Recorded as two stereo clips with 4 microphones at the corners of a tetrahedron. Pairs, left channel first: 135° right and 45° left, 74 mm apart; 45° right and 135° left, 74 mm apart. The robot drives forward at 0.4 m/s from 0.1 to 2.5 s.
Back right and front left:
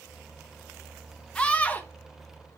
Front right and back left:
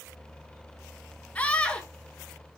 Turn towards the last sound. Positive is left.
turn(degrees=-125)